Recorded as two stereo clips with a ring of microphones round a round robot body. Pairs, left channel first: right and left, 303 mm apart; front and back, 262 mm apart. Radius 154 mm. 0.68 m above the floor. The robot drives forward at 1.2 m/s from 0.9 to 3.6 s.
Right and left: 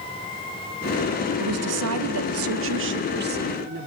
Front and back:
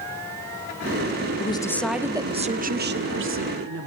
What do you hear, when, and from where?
1.4 s a woman speaking: 65° left, 1.7 m; by 3.9 s 150° left, 2.5 m